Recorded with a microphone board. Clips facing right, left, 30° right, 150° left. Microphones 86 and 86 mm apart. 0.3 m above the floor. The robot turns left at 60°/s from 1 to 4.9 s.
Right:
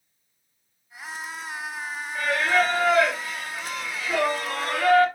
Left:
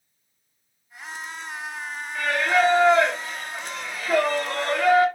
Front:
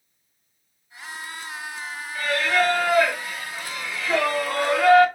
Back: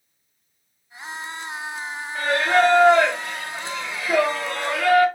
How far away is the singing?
About 1.1 m.